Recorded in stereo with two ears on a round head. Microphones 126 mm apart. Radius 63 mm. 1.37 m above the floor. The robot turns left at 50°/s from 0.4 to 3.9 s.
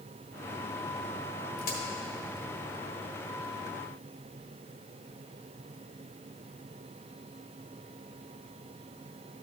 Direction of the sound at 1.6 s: 70° left (ahead or behind).